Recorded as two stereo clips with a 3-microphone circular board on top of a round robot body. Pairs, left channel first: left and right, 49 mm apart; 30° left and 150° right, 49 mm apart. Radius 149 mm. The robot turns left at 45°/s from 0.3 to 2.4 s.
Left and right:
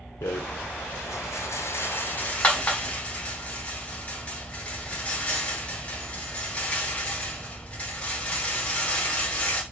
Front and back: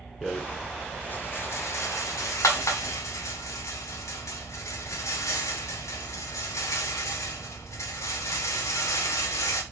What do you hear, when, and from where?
0.2 s a rattle: 120° left, 1.2 m; by 9.6 s 25° left, 1.2 m